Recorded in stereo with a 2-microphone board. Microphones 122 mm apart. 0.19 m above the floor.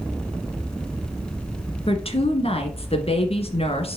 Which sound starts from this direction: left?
A woman speaking, at 1.9 s.